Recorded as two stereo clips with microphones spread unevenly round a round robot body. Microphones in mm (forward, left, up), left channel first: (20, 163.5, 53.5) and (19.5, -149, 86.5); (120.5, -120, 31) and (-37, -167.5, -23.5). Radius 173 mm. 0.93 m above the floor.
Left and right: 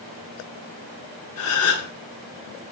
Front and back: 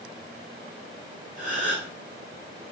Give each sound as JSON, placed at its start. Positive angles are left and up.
{"t": 1.4, "sound": "a gasp", "azimuth_deg": 135, "distance_m": 4.5}